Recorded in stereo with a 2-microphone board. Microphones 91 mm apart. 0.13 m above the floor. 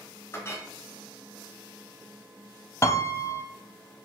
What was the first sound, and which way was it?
A clink, 30° left (ahead or behind).